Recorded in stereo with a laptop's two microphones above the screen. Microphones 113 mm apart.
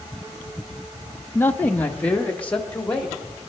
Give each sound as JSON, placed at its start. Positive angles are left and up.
{"t": 1.4, "sound": "a man speaking", "side_deg": 20, "distance_m": 0.6}